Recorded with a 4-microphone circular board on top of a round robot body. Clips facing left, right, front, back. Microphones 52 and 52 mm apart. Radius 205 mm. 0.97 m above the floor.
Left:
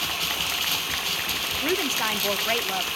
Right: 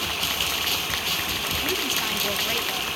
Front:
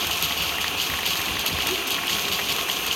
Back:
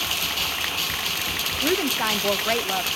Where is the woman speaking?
150° left, 1.1 m.